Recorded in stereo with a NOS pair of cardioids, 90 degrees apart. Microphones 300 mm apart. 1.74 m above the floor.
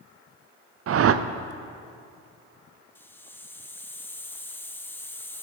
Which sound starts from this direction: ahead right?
A whoosh, at 0.9 s.